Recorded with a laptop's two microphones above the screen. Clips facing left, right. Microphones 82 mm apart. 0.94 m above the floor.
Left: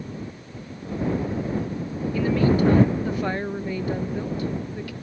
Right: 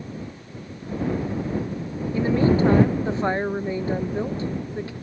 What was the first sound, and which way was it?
A woman speaking, 25° right (ahead or behind).